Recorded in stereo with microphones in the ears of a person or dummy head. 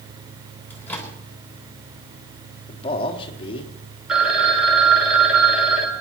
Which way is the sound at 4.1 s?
10° right (ahead or behind).